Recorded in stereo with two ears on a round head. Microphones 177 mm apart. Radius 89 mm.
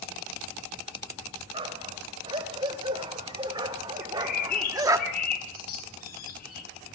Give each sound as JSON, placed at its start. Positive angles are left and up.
{"t": 1.5, "sound": "a dog barking", "side_deg": -25, "distance_m": 3.0}
{"t": 4.0, "sound": "a bird", "side_deg": 50, "distance_m": 4.5}